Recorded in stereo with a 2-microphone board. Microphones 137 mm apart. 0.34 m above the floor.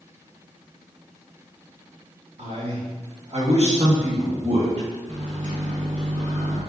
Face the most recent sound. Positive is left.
turn(degrees=-60)  # may be behind; listen again after turning